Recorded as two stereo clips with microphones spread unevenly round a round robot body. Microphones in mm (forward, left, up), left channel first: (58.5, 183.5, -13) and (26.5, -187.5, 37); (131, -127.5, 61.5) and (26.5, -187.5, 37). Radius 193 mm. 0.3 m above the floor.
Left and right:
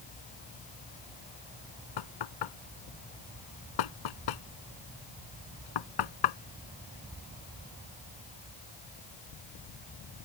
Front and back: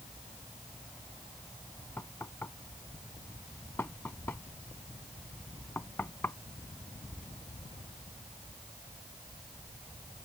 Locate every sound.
2.0 s knocking: 110° left